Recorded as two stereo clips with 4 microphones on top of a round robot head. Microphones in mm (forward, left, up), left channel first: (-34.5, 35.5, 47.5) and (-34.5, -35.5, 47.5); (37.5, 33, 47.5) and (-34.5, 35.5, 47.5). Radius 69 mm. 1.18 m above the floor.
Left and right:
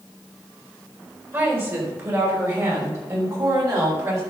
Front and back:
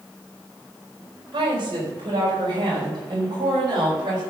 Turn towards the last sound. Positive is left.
turn(degrees=-135)